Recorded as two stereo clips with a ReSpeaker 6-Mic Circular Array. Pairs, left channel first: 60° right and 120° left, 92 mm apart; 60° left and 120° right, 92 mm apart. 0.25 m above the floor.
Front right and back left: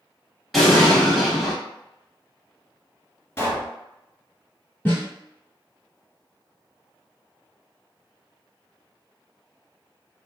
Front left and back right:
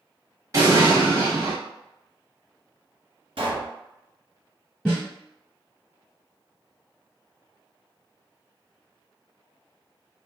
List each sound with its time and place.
0.5 s an explosion: 150° right, 0.9 m
3.4 s a pop: 120° right, 1.7 m
4.8 s a snare drum: 20° right, 1.3 m